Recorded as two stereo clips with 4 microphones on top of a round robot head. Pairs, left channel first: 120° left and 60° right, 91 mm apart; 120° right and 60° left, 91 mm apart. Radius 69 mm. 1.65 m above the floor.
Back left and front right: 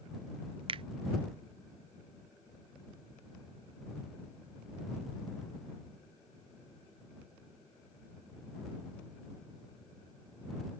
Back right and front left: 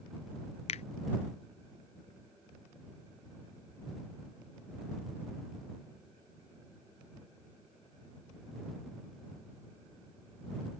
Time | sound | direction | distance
0.7 | a finger snap | 95° right | ?